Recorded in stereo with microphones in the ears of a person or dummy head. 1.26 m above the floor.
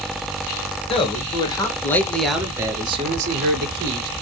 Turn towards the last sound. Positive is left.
turn(degrees=-50)  # may be behind; listen again after turning